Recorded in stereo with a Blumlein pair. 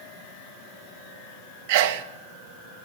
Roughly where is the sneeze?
Ahead right.